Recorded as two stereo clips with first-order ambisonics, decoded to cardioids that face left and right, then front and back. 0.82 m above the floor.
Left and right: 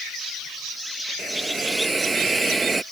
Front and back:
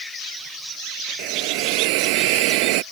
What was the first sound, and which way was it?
A hiss, 170° right.